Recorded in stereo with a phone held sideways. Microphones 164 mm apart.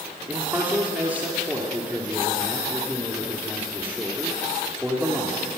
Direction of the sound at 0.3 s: 10° right (ahead or behind).